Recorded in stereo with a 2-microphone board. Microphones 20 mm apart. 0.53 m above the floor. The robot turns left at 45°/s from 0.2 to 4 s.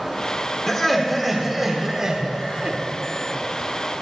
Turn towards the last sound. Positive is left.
turn(degrees=-120)